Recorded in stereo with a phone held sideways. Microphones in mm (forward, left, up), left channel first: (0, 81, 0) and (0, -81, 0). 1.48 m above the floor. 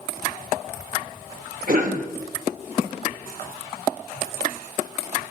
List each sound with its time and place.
1.7 s a cough: 60° right (ahead or behind), 1.2 m